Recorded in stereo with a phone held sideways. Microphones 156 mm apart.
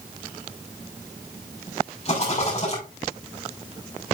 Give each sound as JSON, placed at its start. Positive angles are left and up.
{"t": 2.0, "sound": "a rattle", "side_deg": 40, "distance_m": 5.5}